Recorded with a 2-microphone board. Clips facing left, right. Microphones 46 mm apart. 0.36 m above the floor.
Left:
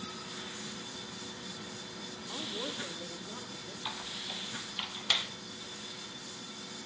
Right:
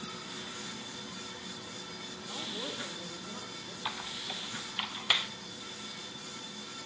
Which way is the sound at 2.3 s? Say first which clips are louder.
Left 1 dB; 5° left (ahead or behind).